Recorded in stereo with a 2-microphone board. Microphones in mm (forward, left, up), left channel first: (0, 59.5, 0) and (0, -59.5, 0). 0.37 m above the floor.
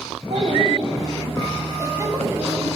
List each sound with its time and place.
0.3 s a child speaking: 70° right (ahead or behind), 1.5 m; by 2.8 s 10° right (ahead or behind), 1.7 m